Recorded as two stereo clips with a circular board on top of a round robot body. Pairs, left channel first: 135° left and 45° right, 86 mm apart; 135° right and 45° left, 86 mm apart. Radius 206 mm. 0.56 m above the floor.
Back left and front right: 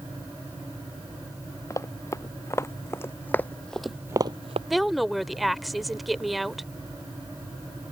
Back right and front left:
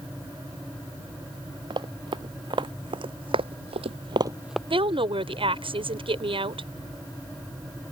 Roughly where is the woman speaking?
Ahead left.